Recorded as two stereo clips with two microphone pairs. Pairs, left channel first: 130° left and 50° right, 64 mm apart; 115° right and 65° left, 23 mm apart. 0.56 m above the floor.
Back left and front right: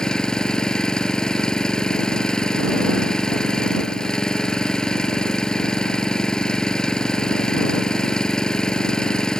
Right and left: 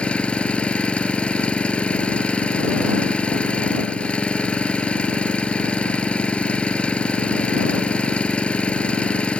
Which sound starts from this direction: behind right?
An engine running, at 0.0 s.